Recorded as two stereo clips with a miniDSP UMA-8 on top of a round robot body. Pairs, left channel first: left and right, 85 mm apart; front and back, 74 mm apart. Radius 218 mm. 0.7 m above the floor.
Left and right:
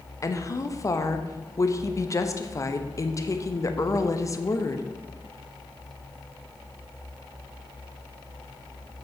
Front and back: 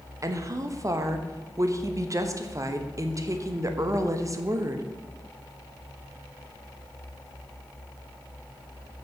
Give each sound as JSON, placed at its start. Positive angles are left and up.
{"t": 0.2, "sound": "a woman speaking", "azimuth_deg": 140, "distance_m": 1.2}